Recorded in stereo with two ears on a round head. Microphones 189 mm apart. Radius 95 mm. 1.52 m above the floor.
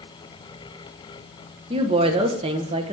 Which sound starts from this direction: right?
A woman speaking, at 1.7 s.